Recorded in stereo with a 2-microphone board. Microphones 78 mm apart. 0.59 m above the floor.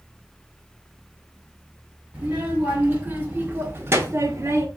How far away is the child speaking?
About 1.9 m.